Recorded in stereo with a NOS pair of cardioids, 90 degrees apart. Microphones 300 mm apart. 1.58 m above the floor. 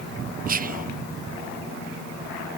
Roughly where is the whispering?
Ahead right.